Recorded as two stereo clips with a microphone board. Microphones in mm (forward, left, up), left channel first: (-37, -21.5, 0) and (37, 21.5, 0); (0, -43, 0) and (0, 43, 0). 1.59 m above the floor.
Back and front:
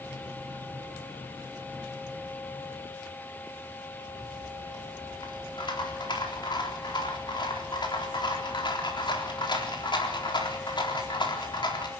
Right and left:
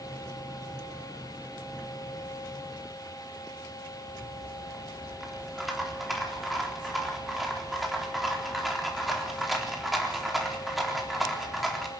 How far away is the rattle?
About 4 m.